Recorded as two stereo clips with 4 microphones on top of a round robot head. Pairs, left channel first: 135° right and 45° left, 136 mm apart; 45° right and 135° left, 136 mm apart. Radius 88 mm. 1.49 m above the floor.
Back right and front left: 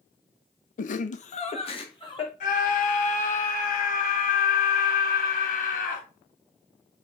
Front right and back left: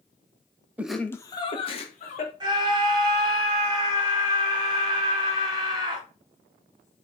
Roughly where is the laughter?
Behind right.